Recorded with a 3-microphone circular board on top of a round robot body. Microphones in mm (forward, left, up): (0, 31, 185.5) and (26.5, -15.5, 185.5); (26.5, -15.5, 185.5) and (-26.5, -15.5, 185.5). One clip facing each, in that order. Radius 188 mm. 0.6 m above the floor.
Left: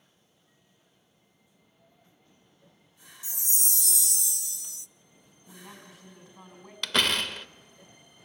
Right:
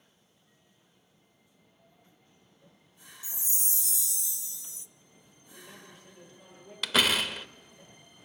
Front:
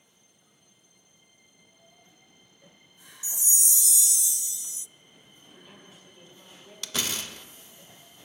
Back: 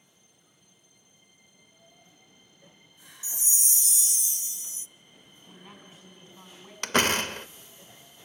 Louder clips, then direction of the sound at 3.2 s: Left 5 dB, front 1 dB; 135° left.